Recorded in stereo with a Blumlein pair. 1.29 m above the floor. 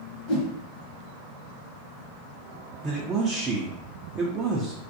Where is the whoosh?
40° left, 1.0 m.